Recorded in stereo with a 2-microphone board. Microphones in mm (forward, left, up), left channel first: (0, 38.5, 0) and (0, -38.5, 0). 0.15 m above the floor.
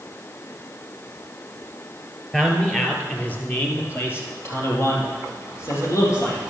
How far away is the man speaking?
About 2.5 m.